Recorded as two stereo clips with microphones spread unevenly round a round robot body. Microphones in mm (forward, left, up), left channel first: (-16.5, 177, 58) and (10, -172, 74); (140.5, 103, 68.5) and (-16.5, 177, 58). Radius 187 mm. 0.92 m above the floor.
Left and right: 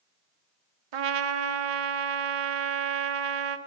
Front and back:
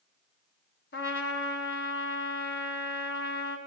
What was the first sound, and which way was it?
A trumpet, 75° right.